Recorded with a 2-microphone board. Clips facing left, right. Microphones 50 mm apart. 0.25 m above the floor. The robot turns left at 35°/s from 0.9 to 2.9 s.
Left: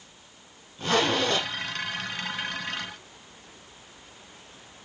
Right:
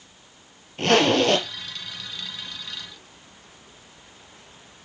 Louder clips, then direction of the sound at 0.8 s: Right 6 dB; 75° right (ahead or behind).